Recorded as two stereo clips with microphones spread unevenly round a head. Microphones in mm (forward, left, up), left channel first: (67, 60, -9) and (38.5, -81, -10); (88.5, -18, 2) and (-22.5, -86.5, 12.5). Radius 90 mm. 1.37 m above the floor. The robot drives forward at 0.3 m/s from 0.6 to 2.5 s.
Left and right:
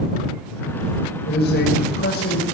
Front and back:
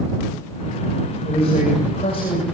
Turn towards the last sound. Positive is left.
turn(degrees=95)